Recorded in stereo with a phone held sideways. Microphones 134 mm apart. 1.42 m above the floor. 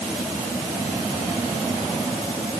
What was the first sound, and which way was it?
Only background noise.